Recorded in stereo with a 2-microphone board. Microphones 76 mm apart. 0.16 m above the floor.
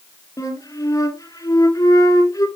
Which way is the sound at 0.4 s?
45° left (ahead or behind).